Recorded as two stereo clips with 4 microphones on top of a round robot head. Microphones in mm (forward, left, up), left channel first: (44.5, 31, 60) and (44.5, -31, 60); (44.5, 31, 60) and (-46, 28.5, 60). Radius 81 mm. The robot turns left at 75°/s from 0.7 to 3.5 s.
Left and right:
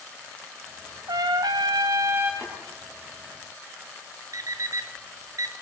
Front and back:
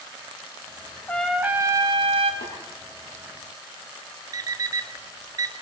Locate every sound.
1.1 s a trumpet: 75° right, 1.3 m; by 2.3 s 165° right, 1.3 m
2.4 s tapping: straight ahead, 9 m; by 2.5 s 10° right, 9 m
4.3 s an alarm clock: 125° right, 0.6 m